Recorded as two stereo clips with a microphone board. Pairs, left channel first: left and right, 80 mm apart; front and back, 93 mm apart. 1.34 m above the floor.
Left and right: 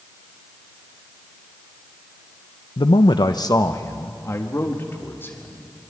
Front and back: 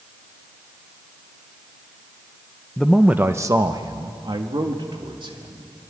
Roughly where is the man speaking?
Left.